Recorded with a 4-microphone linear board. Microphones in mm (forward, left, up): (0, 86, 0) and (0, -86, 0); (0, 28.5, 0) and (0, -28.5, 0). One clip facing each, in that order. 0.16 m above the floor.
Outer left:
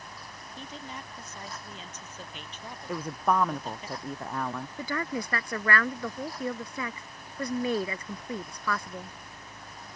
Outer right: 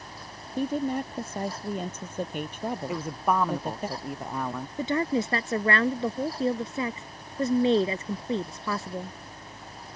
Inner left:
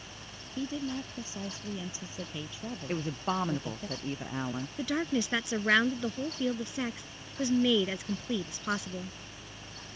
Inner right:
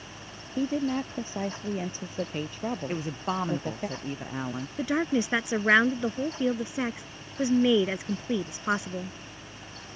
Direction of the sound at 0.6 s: 60° right (ahead or behind).